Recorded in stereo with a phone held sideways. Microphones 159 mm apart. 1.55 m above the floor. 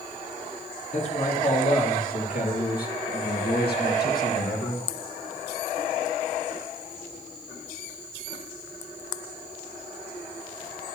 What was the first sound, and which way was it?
A man speaking, 50° left (ahead or behind).